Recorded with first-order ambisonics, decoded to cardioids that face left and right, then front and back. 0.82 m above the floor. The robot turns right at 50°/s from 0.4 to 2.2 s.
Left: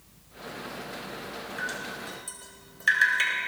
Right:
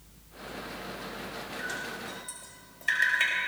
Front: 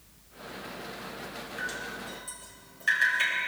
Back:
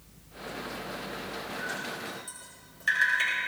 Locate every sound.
1.6 s dripping: 65° left, 5 m; by 3.5 s 95° left, 5 m